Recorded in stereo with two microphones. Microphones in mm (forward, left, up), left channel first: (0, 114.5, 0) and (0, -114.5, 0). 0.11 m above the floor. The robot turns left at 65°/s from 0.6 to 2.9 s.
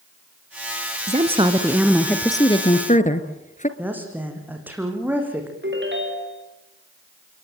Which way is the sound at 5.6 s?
60° right (ahead or behind).